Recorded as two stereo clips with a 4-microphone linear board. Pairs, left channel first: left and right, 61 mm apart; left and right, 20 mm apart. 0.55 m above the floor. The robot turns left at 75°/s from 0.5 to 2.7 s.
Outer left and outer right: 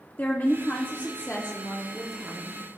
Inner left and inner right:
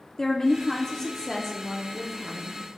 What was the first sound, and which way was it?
A woman speaking, 110° left.